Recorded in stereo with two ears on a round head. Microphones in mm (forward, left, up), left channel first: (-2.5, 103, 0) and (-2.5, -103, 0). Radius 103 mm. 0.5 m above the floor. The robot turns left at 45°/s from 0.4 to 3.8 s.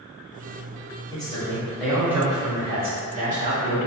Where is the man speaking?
35° left, 1.2 m; by 3.9 s 90° right, 1.2 m.